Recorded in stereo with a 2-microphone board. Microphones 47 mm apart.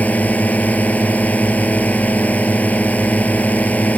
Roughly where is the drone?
Left.